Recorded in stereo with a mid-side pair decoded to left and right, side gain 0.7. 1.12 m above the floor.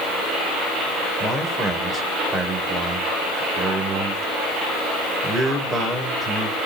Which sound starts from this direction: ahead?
A man speaking, at 1.2 s.